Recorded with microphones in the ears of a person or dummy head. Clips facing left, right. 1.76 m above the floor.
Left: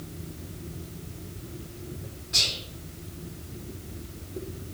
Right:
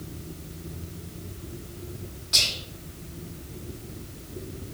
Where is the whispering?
60° right (ahead or behind), 0.8 m.